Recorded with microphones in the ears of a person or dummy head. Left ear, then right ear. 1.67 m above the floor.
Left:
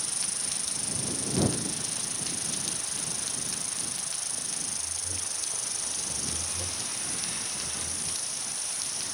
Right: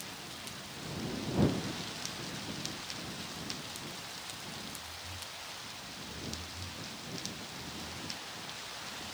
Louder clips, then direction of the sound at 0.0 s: Left 9 dB; 75° left (ahead or behind).